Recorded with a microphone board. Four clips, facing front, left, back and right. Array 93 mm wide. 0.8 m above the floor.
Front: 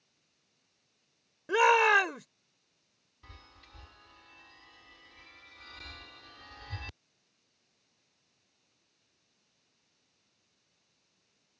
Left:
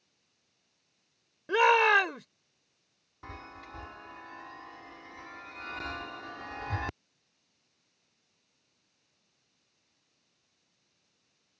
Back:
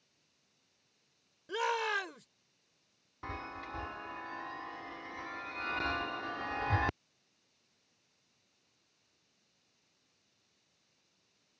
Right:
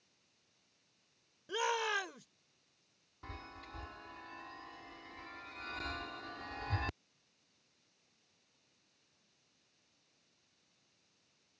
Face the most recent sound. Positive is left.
turn(degrees=165)